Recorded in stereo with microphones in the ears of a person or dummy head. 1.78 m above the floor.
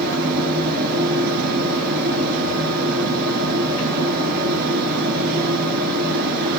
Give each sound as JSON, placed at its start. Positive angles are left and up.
{"t": 0.0, "sound": "a fan", "side_deg": -45, "distance_m": 1.2}